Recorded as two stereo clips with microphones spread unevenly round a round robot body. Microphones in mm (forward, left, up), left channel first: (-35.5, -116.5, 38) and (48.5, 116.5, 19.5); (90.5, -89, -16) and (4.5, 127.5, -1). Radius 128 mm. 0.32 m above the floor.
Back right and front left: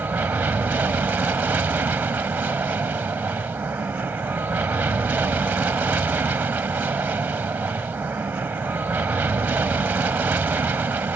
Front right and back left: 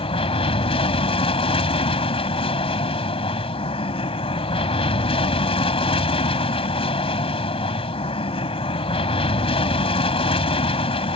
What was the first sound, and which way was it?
An aircraft, 10° right.